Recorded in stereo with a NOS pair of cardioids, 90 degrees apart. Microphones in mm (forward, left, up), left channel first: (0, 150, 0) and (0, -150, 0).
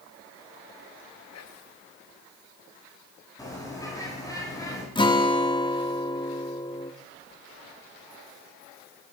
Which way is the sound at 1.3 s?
60° left.